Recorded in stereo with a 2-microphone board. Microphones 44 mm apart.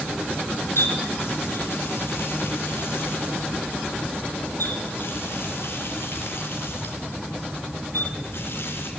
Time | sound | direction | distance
0.8 | a running tap | 60° left (ahead or behind) | 4 m